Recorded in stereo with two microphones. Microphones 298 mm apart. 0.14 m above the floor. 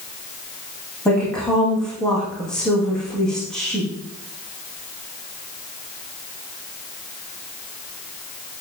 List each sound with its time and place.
1.1 s a woman speaking: centre (ahead or behind), 7 m